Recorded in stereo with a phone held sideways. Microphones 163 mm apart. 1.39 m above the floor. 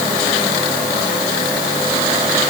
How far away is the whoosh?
No whoosh in this recording.